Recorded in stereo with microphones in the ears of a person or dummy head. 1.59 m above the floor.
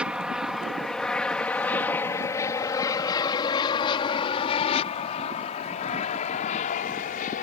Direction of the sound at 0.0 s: 5° right (ahead or behind).